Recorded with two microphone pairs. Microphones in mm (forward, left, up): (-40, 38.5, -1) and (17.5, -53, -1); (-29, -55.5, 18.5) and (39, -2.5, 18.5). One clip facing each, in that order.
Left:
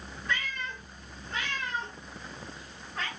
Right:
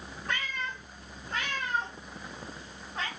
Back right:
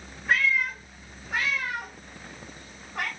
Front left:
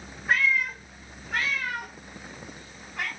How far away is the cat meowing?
About 1.3 m.